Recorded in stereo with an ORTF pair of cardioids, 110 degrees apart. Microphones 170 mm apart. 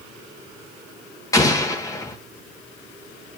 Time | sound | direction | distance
1.3 | an explosion | 20° left | 1.9 m